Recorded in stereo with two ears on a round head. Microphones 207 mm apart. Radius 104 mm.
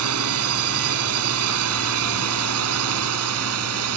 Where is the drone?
70° right (ahead or behind); by 4.0 s 75° right (ahead or behind).